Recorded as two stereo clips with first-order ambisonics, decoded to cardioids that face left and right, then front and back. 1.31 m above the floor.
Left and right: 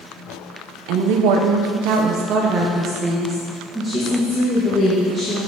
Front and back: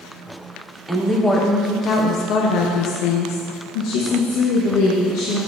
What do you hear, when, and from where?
0.9 s a woman speaking: 95° right, 1.1 m; by 5.5 s 15° left, 2 m